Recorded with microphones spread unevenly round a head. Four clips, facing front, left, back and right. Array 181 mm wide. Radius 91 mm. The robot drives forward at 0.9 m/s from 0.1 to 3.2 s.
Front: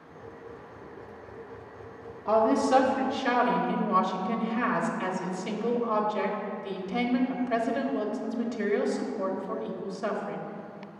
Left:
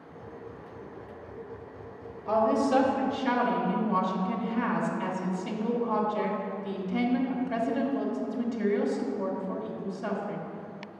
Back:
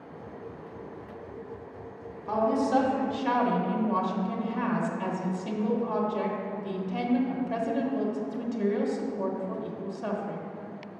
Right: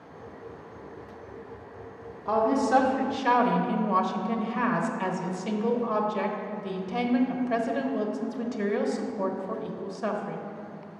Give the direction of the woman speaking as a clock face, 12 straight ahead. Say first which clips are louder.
Right 1 dB, front 3 dB; 1 o'clock.